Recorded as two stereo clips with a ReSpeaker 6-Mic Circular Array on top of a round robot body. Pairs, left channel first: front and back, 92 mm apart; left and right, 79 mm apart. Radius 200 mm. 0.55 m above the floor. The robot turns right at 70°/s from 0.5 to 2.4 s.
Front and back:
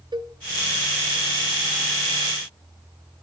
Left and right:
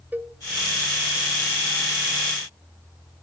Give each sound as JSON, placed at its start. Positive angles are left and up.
{"t": 0.1, "sound": "a cowbell", "azimuth_deg": -155, "distance_m": 1.4}